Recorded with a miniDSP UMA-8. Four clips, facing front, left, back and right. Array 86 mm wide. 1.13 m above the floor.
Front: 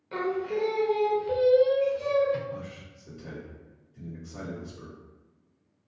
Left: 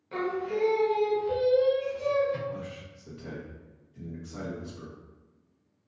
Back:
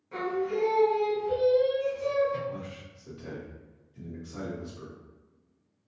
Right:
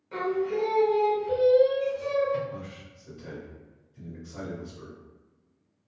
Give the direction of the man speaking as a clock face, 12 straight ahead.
7 o'clock.